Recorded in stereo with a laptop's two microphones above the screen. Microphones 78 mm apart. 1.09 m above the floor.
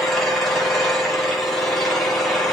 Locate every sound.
0.0 s an engine running: centre (ahead or behind), 2.5 m